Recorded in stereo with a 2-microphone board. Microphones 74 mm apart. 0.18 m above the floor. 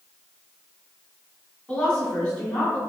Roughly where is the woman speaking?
Left.